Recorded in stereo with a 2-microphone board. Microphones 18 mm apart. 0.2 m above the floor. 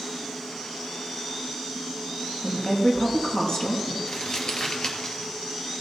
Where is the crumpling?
50° left (ahead or behind), 2.5 m.